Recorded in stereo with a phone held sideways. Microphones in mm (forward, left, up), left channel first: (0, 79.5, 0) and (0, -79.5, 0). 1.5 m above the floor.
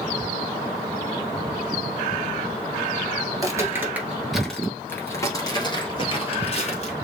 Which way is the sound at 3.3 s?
25° right (ahead or behind).